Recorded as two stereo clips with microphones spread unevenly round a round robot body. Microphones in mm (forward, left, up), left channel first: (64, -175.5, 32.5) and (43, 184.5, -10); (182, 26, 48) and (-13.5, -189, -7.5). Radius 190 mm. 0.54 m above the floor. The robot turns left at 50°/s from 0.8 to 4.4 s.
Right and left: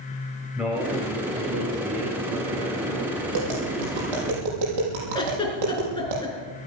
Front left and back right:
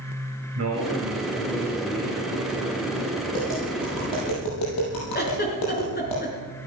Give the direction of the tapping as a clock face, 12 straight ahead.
8 o'clock.